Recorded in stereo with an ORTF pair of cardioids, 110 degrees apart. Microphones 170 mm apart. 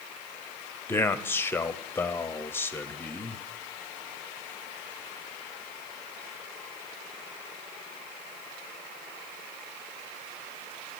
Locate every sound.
0.9 s a man speaking: 15° left, 0.7 m